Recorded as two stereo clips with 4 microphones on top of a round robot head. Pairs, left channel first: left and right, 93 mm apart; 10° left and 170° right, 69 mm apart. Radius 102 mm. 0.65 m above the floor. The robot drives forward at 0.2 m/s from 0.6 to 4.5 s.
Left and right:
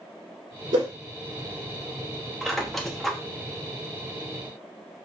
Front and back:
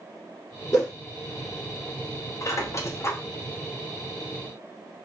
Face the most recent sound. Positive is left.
turn(degrees=25)